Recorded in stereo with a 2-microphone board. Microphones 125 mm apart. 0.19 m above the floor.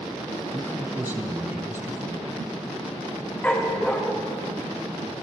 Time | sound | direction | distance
0.5 | a man speaking | 20° right (ahead or behind) | 1.5 m
3.4 | a dog barking | 10° left (ahead or behind) | 3.5 m